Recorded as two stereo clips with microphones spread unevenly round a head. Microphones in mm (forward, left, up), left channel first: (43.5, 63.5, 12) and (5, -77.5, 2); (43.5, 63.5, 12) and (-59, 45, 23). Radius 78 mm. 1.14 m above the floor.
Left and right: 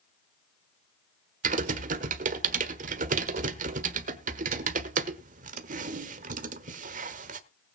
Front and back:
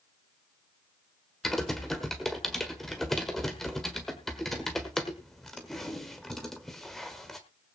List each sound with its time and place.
1.4 s typing on a keyboard: 80° right, 1.2 m